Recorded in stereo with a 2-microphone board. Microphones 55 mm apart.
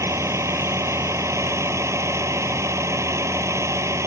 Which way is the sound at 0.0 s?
60° right (ahead or behind).